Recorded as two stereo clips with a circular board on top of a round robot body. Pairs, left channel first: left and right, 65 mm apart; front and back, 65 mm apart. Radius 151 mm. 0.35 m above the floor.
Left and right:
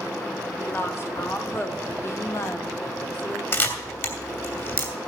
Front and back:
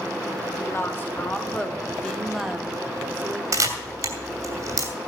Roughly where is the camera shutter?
Behind left.